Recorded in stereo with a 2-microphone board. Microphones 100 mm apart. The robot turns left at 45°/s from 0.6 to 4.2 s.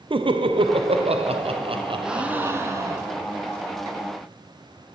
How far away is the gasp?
About 0.6 m.